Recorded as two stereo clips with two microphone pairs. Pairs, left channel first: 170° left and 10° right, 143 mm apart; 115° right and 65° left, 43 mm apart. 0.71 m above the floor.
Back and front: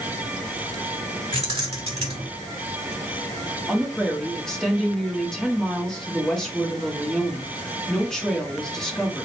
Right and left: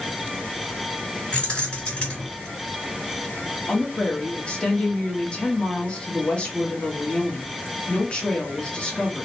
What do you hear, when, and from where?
1.3 s keys jangling: 55° right, 1.6 m
3.7 s a woman speaking: 110° right, 0.9 m